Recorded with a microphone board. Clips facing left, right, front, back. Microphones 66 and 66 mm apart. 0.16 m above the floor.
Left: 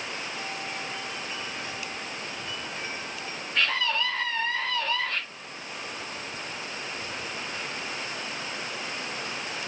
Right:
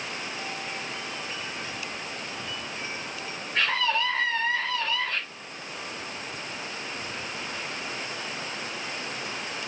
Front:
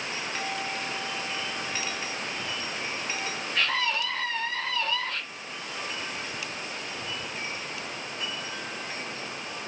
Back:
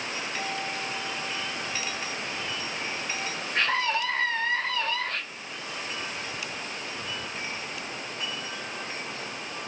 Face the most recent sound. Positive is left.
turn(degrees=-165)